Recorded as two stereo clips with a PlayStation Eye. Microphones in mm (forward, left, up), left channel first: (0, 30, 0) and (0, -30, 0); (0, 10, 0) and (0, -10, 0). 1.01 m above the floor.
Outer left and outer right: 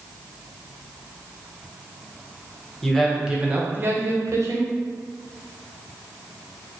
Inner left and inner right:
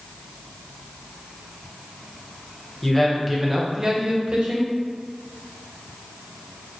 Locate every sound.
2.8 s a man speaking: 10° left (ahead or behind), 0.8 m; by 4.7 s 65° right (ahead or behind), 1.0 m